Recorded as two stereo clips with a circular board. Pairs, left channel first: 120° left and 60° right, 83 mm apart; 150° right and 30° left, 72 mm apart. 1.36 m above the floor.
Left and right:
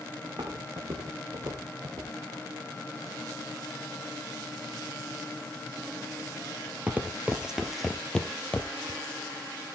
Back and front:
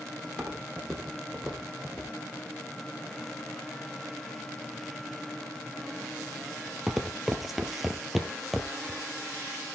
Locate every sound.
0.2 s footsteps: 60° right, 4 m; by 9.0 s 115° left, 1.5 m